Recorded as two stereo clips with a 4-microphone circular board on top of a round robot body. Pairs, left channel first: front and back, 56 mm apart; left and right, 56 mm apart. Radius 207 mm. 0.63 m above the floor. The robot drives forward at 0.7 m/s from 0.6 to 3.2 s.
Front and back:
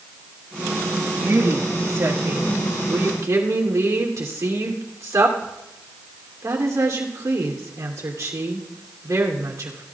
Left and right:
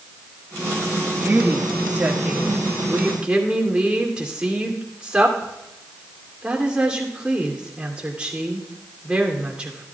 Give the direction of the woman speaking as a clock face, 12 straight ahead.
5 o'clock.